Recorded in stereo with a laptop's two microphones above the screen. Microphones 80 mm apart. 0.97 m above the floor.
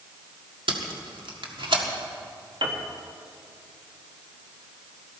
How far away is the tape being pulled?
About 1.8 m.